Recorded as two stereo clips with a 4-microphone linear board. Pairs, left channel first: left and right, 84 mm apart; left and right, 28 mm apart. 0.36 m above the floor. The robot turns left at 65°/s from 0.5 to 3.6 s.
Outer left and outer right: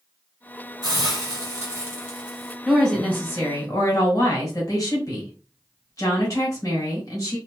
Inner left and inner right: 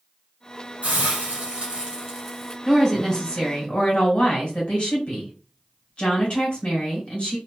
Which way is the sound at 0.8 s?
75° right.